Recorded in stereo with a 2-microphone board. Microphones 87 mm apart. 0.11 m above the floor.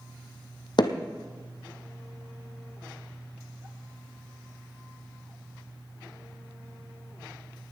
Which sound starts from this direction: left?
Hammering, at 0.8 s.